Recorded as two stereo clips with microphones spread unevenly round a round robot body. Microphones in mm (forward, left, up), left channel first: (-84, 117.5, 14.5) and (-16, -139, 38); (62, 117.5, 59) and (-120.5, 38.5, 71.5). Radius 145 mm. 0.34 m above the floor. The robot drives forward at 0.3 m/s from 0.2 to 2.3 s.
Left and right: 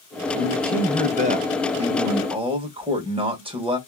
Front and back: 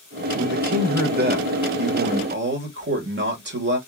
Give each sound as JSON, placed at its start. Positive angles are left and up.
{"t": 0.3, "sound": "a man speaking", "azimuth_deg": -120, "distance_m": 1.1}